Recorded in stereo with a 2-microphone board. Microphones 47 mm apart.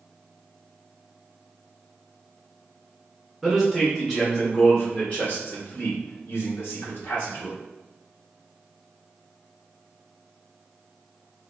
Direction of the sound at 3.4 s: Centre (ahead or behind).